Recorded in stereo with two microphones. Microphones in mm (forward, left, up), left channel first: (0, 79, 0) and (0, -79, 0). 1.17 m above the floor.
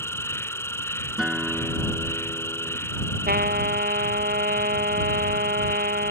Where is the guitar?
5° right (ahead or behind).